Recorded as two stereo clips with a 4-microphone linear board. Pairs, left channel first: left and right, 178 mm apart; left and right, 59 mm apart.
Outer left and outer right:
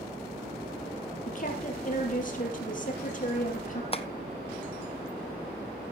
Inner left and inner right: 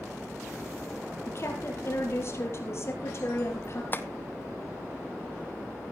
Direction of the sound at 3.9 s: 35° left (ahead or behind).